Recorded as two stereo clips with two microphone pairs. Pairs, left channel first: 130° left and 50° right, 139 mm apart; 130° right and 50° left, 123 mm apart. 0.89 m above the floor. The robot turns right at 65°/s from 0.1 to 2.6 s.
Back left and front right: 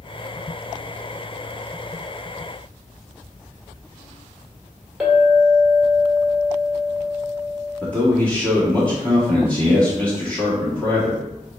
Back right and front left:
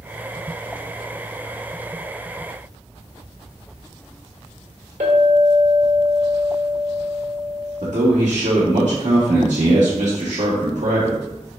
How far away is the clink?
About 1.3 m.